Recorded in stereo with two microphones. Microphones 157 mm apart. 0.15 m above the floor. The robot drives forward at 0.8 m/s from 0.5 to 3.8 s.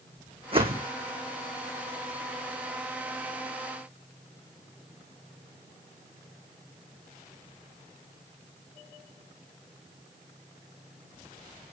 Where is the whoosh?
40° right (ahead or behind), 1.5 m; by 0.9 s 30° right (ahead or behind), 1.8 m.